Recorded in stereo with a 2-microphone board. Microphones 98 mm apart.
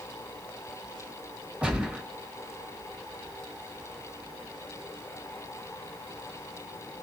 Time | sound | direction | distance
1.6 | a gunshot | 15° right (ahead or behind) | 1.6 m